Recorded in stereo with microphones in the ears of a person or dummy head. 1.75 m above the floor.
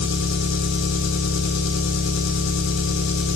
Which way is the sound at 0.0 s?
80° left.